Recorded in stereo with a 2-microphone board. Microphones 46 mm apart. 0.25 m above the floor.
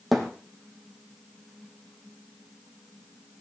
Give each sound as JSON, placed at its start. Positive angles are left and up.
{"t": 0.1, "sound": "a thud", "side_deg": 0, "distance_m": 3.0}